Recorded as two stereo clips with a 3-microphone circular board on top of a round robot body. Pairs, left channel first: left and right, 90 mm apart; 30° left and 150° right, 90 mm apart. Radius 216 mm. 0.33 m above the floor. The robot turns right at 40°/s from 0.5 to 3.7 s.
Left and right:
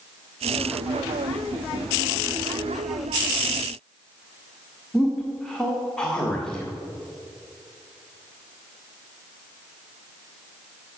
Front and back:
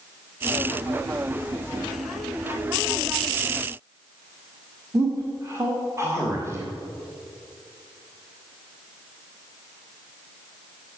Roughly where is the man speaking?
Behind.